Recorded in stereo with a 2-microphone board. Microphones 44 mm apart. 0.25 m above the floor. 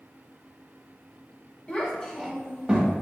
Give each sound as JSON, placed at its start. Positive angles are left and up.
{"t": 1.7, "sound": "a child speaking", "side_deg": 25, "distance_m": 0.8}